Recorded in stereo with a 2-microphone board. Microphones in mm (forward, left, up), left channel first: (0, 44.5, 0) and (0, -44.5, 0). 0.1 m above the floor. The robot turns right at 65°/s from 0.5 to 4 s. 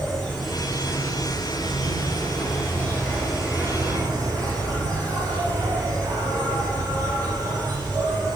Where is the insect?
Straight ahead, 6 m; by 8.4 s 130° right, 6 m.